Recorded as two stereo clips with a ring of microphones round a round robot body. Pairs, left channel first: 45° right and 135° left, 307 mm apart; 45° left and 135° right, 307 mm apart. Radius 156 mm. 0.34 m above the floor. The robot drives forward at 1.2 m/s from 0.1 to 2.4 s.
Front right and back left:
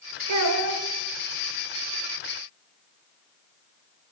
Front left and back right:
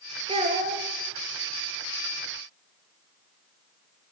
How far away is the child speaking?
About 0.9 m.